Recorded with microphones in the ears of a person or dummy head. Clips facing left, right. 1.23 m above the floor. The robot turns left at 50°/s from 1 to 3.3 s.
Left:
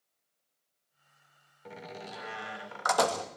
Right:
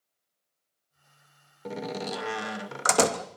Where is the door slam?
70° right, 1.0 m; by 3.3 s 155° right, 1.0 m.